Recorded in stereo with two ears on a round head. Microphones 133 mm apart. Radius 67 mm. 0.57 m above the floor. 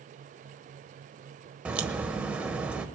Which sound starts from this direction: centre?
A crack, at 1.6 s.